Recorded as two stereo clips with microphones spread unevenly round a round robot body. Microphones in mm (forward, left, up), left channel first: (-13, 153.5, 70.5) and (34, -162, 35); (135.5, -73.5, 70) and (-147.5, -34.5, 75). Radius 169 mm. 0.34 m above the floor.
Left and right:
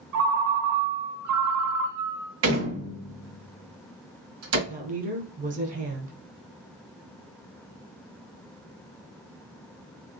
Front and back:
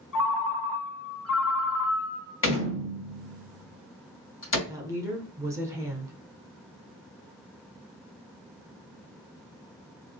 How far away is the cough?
I don't hear a cough.